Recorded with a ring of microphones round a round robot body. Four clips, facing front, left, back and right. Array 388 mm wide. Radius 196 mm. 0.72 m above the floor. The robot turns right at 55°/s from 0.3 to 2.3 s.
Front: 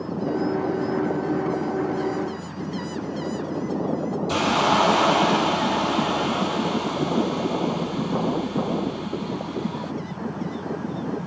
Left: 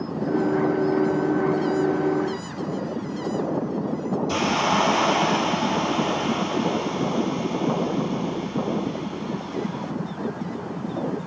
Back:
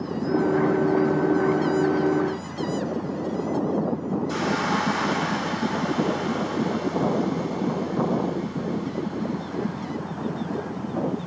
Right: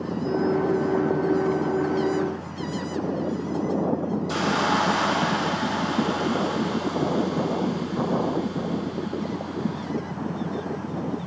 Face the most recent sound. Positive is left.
turn(degrees=25)